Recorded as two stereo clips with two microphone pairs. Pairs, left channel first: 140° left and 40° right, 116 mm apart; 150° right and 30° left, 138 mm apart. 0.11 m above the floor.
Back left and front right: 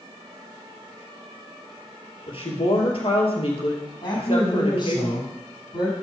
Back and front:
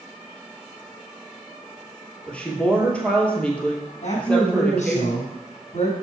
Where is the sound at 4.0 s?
170° right, 5 m.